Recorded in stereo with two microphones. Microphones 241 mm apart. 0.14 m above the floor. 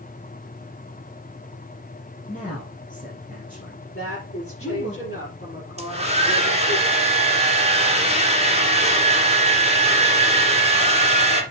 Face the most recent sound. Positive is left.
turn(degrees=-25)  # may be behind; listen again after turning